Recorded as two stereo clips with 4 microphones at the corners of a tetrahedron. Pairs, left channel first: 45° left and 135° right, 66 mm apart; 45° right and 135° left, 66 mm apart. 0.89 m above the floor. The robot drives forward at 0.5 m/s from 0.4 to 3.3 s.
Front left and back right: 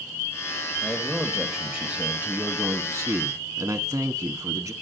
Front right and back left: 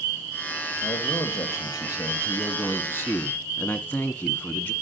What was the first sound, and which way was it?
A man speaking, 45° right.